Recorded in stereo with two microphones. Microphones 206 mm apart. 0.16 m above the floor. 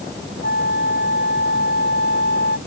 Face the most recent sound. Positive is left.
turn(degrees=55)  # may be behind; listen again after turning